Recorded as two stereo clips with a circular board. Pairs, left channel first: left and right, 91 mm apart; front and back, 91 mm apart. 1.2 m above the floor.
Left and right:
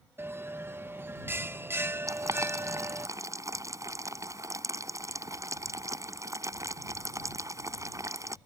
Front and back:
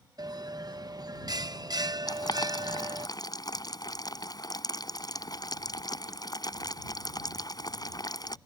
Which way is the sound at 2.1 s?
40° right.